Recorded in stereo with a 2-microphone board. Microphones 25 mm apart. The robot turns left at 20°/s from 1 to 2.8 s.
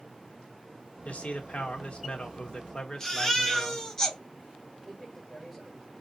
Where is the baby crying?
10° left (ahead or behind), 2.5 m.